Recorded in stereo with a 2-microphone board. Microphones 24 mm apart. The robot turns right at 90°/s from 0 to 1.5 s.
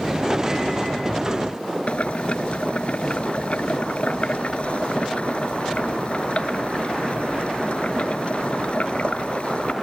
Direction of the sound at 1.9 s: 55° left (ahead or behind).